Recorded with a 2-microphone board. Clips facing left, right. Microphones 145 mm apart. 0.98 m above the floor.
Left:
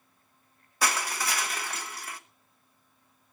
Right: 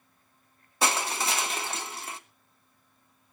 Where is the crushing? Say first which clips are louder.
Right 2 dB; 25° right (ahead or behind), 1.1 m.